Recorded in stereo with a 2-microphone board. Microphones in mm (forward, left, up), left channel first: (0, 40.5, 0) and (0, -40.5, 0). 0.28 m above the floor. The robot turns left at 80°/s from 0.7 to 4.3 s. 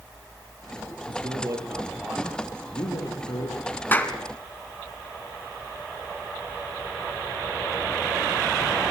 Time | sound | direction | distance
1.1 | a man speaking | 100° right | 8 m
3.9 | a clap | 25° left (ahead or behind) | 2.5 m